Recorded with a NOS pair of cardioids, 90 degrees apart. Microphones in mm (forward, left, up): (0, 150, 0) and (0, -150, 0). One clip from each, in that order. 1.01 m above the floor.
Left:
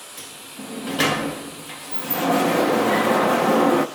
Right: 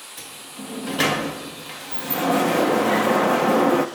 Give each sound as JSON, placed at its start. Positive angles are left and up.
{"t": 0.2, "sound": "a sliding door", "azimuth_deg": 0, "distance_m": 1.0}